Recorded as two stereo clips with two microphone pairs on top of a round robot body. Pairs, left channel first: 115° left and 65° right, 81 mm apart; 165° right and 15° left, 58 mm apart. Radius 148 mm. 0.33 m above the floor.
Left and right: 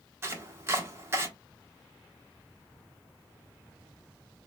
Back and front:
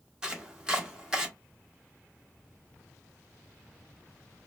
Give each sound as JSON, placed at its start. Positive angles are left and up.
{"t": 0.2, "sound": "chopping", "azimuth_deg": -65, "distance_m": 1.0}